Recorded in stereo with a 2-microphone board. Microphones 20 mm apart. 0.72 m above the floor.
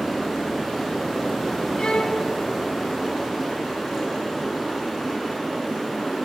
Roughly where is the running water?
Centre.